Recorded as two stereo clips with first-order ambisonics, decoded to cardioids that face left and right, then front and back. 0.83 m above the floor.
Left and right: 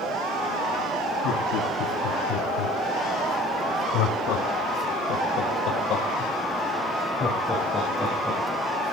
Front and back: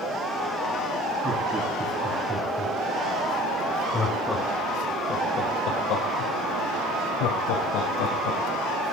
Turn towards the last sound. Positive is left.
turn(degrees=0)